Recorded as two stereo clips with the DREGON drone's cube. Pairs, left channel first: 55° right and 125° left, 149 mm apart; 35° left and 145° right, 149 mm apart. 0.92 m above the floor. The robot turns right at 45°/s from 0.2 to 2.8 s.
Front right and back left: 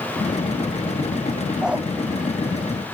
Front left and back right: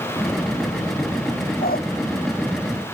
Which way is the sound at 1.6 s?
35° left.